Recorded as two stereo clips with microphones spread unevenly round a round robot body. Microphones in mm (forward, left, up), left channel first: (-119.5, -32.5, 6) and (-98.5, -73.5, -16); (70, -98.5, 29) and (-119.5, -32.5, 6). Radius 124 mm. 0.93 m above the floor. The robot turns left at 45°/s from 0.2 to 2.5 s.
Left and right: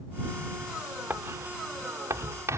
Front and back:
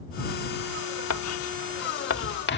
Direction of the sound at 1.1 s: 10° left.